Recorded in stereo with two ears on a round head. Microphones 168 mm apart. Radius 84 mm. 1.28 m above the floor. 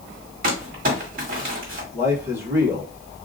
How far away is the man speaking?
About 1.8 m.